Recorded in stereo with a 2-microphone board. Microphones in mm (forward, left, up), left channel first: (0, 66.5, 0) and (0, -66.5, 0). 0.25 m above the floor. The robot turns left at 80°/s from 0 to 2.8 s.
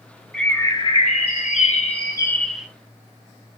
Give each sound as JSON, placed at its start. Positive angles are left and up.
{"t": 0.3, "sound": "a bird", "azimuth_deg": 175, "distance_m": 0.9}